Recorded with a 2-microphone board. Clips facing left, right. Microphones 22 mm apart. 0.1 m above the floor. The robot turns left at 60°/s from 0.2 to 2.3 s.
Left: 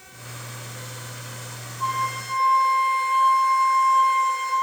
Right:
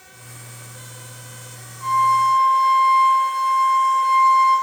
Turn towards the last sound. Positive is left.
turn(degrees=10)  # may be behind; listen again after turning